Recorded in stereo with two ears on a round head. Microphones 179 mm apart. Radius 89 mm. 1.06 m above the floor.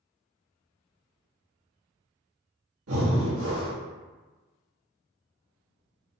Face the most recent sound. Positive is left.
turn(degrees=-85)